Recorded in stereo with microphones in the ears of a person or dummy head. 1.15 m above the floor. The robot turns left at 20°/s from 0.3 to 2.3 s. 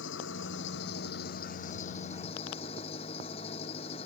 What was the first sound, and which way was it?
An engine running, 75° left.